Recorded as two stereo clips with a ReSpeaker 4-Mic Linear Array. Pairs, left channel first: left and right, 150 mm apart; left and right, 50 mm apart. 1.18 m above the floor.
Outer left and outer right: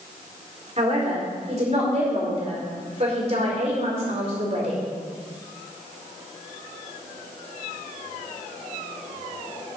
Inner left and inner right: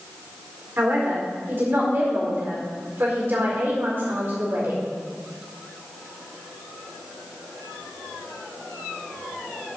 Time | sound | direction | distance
0.8 | a man speaking | 45° right (ahead or behind) | 4.5 m